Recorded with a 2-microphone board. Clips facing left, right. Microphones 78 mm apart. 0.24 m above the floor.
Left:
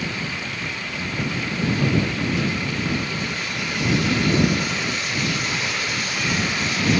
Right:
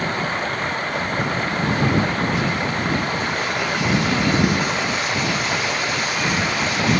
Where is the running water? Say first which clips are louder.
Right 6 dB; 45° right (ahead or behind).